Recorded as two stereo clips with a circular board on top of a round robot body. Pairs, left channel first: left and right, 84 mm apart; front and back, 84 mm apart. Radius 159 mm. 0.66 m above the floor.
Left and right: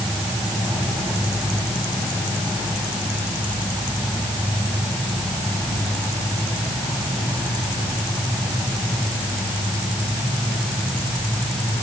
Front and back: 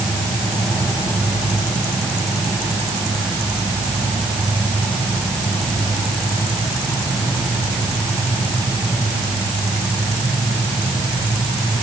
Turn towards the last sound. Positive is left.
No sound to turn to.